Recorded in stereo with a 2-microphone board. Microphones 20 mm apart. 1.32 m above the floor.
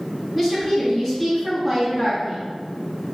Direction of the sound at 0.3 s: 20° right (ahead or behind).